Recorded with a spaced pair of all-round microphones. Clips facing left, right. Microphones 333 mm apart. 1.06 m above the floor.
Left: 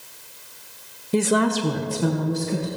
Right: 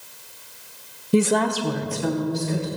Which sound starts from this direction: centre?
A woman speaking, at 1.1 s.